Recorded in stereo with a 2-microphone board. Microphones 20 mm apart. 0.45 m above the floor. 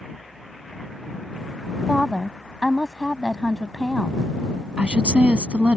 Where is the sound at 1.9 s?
10° left (ahead or behind).